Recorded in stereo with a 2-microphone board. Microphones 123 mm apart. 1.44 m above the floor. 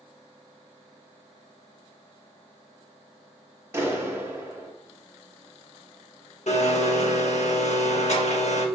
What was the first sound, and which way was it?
A clap, 20° right (ahead or behind).